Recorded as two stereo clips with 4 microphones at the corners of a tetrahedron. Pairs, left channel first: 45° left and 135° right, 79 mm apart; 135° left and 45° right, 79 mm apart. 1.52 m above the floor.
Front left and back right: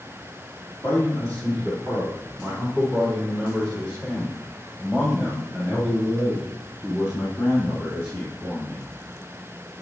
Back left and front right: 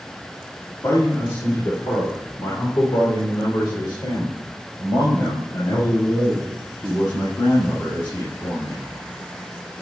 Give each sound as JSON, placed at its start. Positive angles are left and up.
{"t": 0.8, "sound": "a man speaking", "azimuth_deg": 105, "distance_m": 3.5}